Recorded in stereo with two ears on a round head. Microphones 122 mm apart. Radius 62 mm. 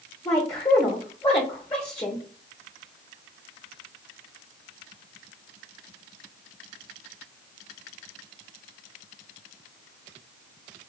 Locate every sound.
0.2 s a woman speaking: 30° left (ahead or behind), 0.9 m